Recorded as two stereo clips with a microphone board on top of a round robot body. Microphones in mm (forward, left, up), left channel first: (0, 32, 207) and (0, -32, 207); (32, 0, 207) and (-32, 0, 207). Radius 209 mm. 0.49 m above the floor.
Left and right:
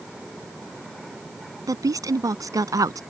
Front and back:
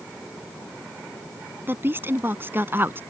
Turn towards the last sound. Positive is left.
turn(degrees=-125)